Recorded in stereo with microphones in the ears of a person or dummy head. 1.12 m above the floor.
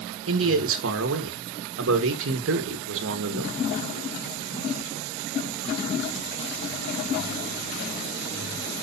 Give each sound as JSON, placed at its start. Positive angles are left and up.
{"t": 0.3, "sound": "a man speaking", "side_deg": -60, "distance_m": 1.2}